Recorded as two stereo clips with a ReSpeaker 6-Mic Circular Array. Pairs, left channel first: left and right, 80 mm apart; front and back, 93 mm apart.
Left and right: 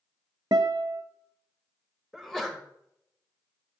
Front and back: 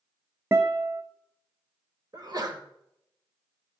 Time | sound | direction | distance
0.5 | a guitar | 120° right | 0.6 m
2.1 | a sneeze | 175° left | 1.3 m